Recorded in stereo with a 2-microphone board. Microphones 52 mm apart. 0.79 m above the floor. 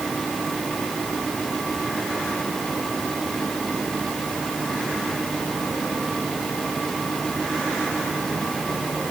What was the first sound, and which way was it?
Only background noise.